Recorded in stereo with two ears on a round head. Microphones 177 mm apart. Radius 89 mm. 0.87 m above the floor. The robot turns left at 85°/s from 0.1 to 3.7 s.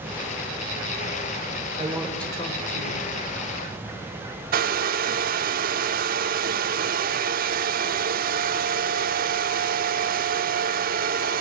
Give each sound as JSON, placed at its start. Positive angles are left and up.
{"t": 1.8, "sound": "a woman speaking", "azimuth_deg": -150, "distance_m": 4.5}
{"t": 4.5, "sound": "a hair dryer", "side_deg": -45, "distance_m": 1.1}